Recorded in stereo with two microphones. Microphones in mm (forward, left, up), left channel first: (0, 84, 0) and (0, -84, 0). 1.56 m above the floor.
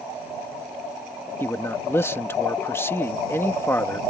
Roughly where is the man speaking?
Centre.